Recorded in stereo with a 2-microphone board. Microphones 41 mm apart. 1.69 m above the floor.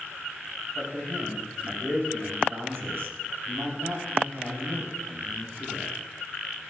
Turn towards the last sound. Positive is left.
turn(degrees=-85)